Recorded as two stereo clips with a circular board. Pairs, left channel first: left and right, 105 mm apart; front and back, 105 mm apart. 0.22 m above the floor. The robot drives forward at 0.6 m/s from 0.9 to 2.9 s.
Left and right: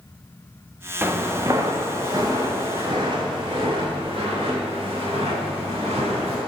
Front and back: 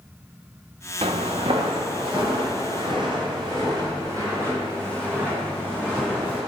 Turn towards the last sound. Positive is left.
turn(degrees=-105)